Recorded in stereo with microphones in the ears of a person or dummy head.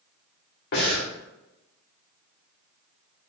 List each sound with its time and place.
0.7 s breathing: 55° left (ahead or behind), 1.6 m